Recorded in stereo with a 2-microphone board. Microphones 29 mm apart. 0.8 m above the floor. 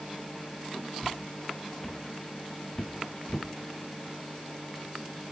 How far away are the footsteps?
About 6 m.